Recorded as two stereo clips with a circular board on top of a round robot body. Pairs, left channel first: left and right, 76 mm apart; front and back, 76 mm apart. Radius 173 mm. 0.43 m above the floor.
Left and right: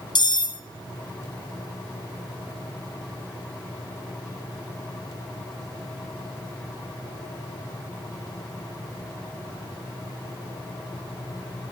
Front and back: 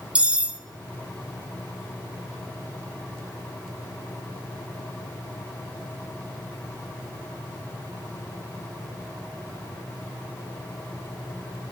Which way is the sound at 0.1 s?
105° left.